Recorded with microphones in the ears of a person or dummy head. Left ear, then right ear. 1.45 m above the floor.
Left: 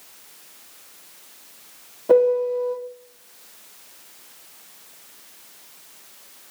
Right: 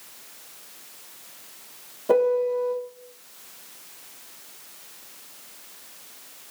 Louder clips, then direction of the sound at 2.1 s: Left 4 dB; 5° left (ahead or behind).